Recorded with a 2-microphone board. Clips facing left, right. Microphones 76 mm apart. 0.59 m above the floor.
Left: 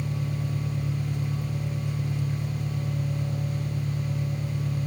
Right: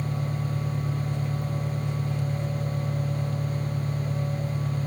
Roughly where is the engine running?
Centre.